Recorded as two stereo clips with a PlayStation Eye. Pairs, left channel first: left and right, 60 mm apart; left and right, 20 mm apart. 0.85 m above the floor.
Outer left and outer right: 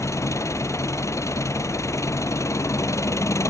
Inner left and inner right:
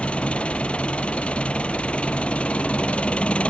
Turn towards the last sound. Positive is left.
turn(degrees=55)  # may be behind; listen again after turning